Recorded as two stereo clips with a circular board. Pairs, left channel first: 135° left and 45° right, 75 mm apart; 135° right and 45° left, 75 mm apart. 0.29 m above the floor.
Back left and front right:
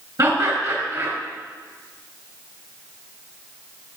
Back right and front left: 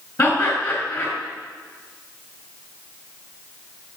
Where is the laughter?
65° right, 3.5 m.